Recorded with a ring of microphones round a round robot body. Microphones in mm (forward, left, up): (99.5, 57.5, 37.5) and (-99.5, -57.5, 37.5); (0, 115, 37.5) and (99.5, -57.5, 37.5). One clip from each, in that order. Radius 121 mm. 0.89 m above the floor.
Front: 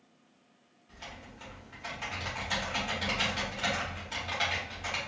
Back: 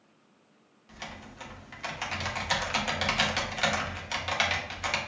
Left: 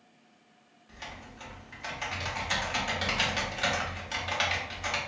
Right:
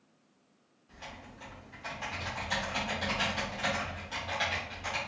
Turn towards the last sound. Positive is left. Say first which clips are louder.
# back 4 dB, left 3 dB
turn(degrees=180)